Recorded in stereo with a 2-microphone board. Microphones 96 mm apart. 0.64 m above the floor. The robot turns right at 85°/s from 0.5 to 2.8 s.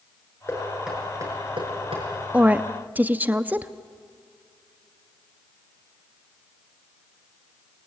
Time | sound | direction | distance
0.5 | knocking | 25° left (ahead or behind) | 7 m
2.3 | a woman speaking | 15° right (ahead or behind) | 0.7 m